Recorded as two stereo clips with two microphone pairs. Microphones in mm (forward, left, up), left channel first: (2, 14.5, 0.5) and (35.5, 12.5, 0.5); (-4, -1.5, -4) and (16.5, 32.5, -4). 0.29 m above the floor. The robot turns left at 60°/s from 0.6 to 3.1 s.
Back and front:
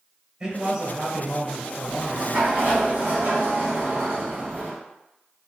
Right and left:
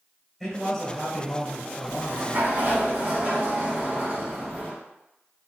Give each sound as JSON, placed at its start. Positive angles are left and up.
{"t": 0.4, "sound": "a man speaking", "azimuth_deg": -35, "distance_m": 1.3}
{"t": 1.9, "sound": "a sliding door", "azimuth_deg": 75, "distance_m": 2.0}